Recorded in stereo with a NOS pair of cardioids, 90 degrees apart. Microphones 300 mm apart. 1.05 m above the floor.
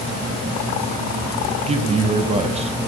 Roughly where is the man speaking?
Ahead.